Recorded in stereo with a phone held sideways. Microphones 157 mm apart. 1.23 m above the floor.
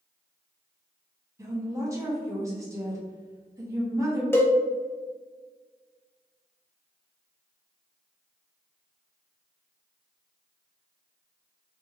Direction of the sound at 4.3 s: 15° left (ahead or behind).